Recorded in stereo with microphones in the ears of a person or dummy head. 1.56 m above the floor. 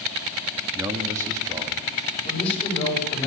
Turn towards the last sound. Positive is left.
turn(degrees=35)  # may be behind; listen again after turning